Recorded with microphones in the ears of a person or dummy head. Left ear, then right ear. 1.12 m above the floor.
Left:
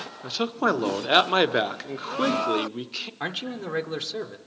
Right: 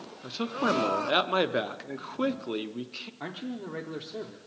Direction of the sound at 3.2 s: 25° left (ahead or behind).